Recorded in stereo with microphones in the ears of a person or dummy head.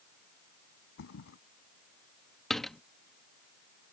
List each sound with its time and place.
1.0 s a thud: 65° left (ahead or behind)
2.5 s a door slam: centre (ahead or behind)